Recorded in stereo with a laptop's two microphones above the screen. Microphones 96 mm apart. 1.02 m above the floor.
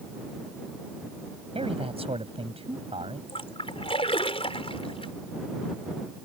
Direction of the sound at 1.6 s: 85° right.